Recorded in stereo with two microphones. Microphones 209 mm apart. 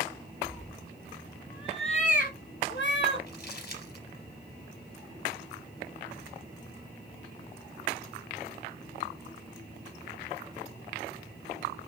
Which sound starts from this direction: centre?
A cat meowing, at 0.4 s.